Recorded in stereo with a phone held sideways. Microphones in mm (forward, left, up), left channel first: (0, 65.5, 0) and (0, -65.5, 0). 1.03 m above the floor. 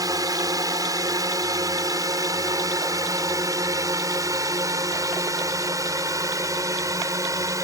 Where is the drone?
30° right (ahead or behind); by 7.6 s 25° right (ahead or behind).